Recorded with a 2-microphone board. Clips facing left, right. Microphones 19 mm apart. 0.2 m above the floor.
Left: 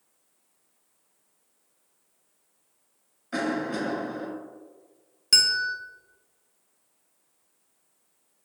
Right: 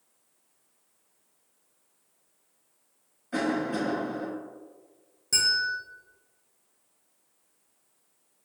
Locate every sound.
3.3 s a cough: 20° left (ahead or behind), 1.2 m
5.3 s a bell: 80° left, 0.5 m